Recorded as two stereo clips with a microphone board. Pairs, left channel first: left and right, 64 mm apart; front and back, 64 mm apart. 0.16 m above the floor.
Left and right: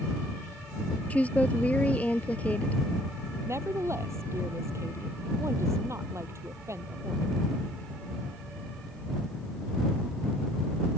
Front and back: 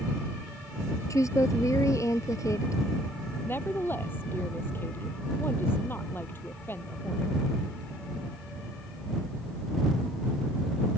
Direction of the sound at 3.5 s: 50° right.